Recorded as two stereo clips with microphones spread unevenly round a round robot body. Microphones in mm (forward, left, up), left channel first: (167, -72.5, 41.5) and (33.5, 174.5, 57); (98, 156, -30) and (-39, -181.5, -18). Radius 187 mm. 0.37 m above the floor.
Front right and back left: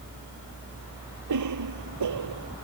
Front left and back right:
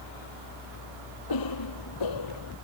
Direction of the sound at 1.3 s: 105° left.